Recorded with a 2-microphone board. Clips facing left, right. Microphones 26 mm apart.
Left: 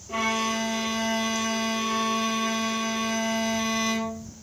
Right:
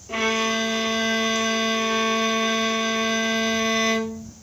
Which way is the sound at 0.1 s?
25° right (ahead or behind).